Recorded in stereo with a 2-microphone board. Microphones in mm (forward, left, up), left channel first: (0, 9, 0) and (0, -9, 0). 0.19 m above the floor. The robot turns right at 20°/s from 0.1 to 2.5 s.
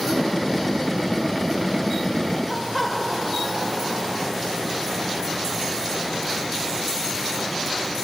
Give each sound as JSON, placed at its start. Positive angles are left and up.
{"t": 2.5, "sound": "laughter", "side_deg": -20, "distance_m": 4.5}